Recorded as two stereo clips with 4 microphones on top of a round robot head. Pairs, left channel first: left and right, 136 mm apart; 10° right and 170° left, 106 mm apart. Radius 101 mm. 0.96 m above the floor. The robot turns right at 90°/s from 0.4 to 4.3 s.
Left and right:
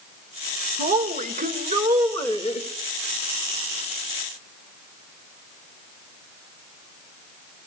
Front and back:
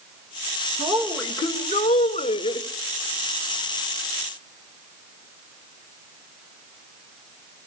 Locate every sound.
0.8 s a woman speaking: 115° right, 1.5 m; by 2.7 s 55° left, 1.5 m